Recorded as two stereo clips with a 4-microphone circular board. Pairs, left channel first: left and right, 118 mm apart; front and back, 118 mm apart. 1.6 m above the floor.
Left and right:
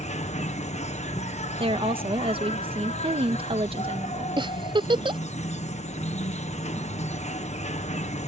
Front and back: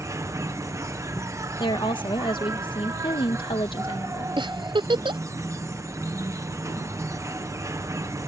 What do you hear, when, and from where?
0.0 s an insect: 115° left
1.6 s a woman speaking: 50° right
4.4 s a giggle: 135° right